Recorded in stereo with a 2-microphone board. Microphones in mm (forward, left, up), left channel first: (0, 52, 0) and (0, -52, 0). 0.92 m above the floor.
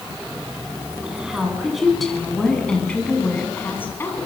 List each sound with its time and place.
1.0 s a woman speaking: 10° right (ahead or behind), 7.5 m; by 4.3 s 25° left (ahead or behind), 7.5 m